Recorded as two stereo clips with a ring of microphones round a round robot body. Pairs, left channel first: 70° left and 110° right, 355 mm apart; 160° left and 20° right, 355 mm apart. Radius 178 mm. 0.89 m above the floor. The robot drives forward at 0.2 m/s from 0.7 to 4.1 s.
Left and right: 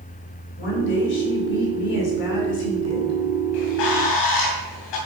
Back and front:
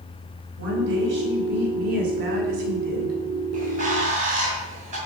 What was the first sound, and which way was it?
A woman speaking, 40° left.